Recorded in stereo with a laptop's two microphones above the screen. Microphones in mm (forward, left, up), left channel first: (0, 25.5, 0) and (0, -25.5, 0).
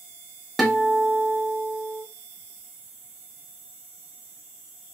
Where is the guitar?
Centre (ahead or behind), 0.9 m.